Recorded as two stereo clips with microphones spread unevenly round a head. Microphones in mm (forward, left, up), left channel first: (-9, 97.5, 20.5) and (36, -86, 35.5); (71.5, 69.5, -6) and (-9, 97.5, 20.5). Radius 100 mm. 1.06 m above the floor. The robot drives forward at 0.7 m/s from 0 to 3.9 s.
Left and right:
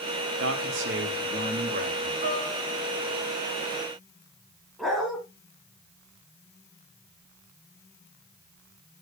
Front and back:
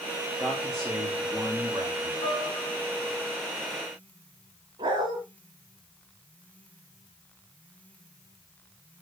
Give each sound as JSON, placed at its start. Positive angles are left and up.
{"t": 0.4, "sound": "a man speaking", "azimuth_deg": -90, "distance_m": 1.6}
{"t": 2.2, "sound": "a piano", "azimuth_deg": -30, "distance_m": 3.0}
{"t": 4.8, "sound": "a dog barking", "azimuth_deg": -165, "distance_m": 2.5}